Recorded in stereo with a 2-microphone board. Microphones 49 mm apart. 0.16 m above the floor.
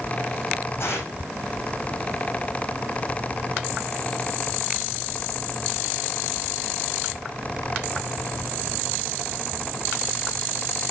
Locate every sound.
0.8 s tearing paper: 60° left (ahead or behind), 9 m